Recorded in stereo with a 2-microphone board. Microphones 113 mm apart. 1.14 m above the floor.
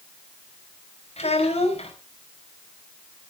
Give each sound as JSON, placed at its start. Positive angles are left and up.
{"t": 1.2, "sound": "a child speaking", "side_deg": 70, "distance_m": 4.5}